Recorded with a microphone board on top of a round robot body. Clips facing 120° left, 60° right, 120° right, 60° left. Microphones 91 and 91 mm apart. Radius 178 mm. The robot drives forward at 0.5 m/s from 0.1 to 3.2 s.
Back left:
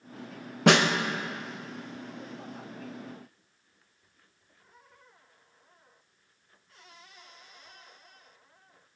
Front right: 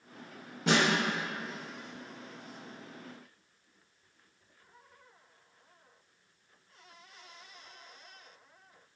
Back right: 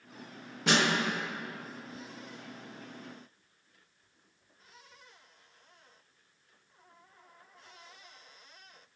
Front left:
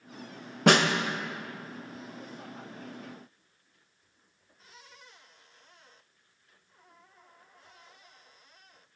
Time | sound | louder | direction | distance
0.7 | a snare drum | back left 6 dB, front left 6 dB | 95° left | 0.6 m